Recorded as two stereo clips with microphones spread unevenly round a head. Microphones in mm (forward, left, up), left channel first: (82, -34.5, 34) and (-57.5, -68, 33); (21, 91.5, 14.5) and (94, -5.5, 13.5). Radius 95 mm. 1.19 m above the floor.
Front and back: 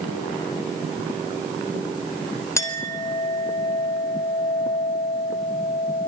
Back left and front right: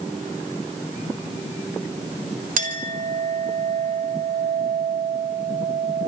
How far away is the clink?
About 4 m.